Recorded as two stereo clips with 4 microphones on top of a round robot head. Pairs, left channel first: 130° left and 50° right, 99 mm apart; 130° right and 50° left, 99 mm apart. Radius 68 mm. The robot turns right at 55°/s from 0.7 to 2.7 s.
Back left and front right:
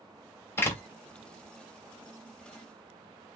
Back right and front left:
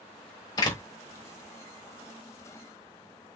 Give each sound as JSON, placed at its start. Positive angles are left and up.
{"t": 0.6, "sound": "a door slam", "azimuth_deg": -170, "distance_m": 0.6}